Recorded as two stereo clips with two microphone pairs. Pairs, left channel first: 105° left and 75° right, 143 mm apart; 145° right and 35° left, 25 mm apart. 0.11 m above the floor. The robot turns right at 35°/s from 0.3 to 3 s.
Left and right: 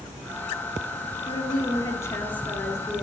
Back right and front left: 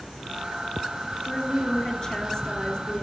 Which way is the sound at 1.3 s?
140° left.